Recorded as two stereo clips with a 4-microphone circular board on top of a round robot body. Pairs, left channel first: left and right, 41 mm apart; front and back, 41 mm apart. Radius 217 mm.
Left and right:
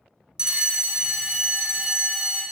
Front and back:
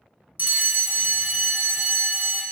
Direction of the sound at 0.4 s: 155° right.